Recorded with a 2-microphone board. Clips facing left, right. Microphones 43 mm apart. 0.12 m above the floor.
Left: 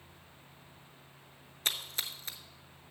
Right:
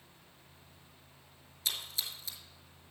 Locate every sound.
1.6 s a splash: 50° left (ahead or behind), 0.8 m